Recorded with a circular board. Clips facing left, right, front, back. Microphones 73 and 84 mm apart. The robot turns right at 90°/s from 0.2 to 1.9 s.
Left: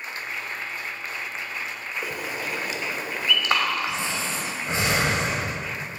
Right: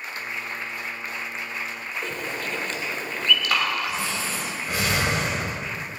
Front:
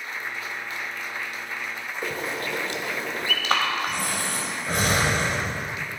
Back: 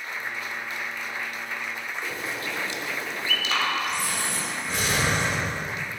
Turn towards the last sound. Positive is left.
turn(degrees=30)